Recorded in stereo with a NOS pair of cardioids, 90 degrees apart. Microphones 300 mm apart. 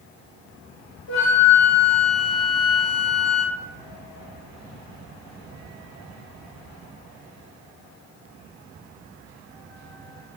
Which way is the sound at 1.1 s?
45° left.